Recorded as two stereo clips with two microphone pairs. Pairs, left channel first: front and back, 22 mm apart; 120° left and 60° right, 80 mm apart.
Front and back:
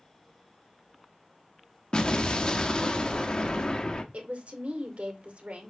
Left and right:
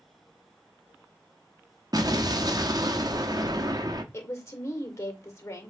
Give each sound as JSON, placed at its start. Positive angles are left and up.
{"t": 1.9, "sound": "an explosion", "azimuth_deg": -30, "distance_m": 1.0}
{"t": 4.1, "sound": "a woman speaking", "azimuth_deg": 175, "distance_m": 2.0}